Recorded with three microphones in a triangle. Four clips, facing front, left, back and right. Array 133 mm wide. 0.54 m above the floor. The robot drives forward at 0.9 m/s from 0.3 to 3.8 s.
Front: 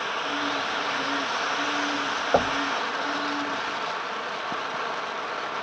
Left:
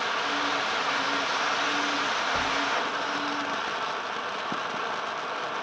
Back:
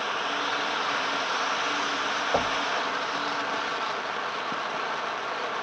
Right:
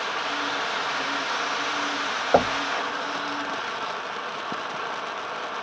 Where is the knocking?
70° right; by 2.6 s 75° right.